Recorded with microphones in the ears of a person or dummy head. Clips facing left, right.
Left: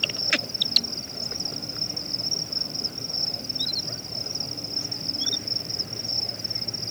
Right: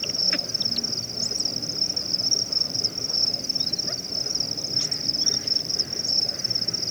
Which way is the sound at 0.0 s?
25° right (ahead or behind).